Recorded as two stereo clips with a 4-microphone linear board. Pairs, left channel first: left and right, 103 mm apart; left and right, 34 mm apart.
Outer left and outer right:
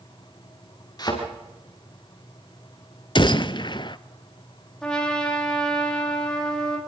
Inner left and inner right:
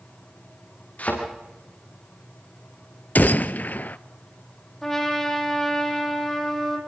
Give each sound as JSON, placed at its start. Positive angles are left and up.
{"t": 1.0, "sound": "a thud", "side_deg": 45, "distance_m": 8.0}
{"t": 3.1, "sound": "a gunshot", "side_deg": 50, "distance_m": 0.6}
{"t": 4.8, "sound": "a trumpet", "side_deg": 10, "distance_m": 4.0}